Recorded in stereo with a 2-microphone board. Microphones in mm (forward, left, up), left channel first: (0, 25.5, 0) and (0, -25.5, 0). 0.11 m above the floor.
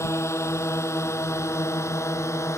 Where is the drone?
65° left (ahead or behind).